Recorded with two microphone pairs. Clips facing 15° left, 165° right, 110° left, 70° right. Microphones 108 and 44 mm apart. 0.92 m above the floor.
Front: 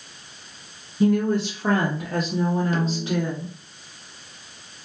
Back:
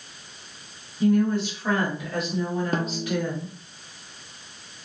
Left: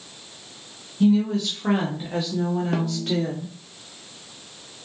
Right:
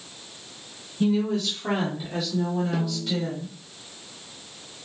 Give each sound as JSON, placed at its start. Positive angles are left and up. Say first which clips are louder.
{"t": 1.0, "sound": "a woman speaking", "louder": "front 1 dB, left 4 dB", "azimuth_deg": 15, "distance_m": 1.0}
{"t": 2.7, "sound": "a snare drum", "louder": "front 2 dB, left 3 dB", "azimuth_deg": 145, "distance_m": 0.7}